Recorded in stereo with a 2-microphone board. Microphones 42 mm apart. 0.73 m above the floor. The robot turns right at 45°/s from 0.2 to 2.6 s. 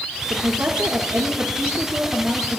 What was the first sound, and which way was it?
A woman speaking, 120° right.